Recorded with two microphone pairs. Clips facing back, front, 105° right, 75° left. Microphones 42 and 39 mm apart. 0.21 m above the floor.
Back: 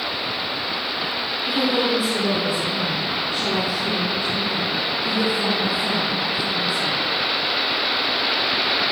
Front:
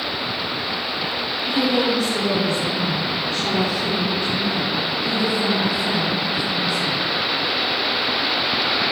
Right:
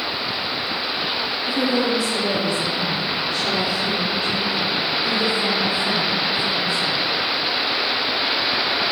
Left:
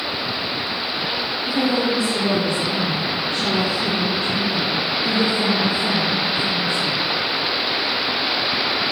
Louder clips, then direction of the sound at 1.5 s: Front 1 dB, left 1 dB; 105° left.